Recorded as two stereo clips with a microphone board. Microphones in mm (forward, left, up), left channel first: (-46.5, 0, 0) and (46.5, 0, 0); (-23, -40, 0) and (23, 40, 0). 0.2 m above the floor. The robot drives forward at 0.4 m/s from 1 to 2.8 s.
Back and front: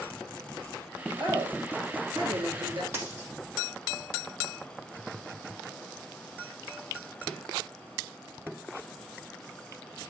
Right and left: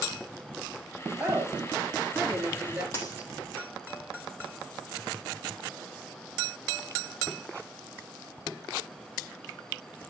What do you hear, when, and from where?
1.2 s a woman speaking: 15° right, 3.5 m; by 2.8 s 20° right, 3 m
2.9 s a dropped coin: 65° right, 3.5 m